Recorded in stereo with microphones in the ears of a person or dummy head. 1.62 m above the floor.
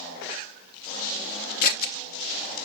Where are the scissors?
55° left (ahead or behind), 0.7 m.